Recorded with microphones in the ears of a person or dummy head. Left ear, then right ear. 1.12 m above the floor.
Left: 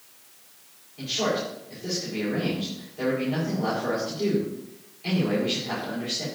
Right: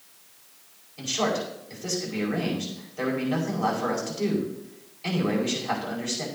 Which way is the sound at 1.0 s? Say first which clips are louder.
Even; 45° right (ahead or behind).